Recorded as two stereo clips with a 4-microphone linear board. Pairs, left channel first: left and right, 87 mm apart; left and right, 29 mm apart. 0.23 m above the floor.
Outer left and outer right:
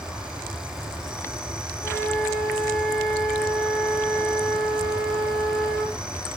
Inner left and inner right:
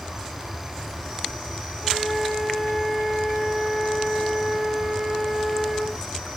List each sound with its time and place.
0.0 s an insect: 10° right (ahead or behind), 4.5 m
1.8 s a flute: 15° left (ahead or behind), 5 m